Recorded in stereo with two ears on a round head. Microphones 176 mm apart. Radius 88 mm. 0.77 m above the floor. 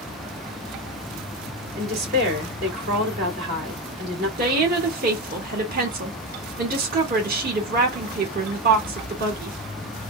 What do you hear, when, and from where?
1.8 s a woman speaking: 55° right (ahead or behind), 2.5 m
4.4 s a woman speaking: 45° right (ahead or behind), 1.9 m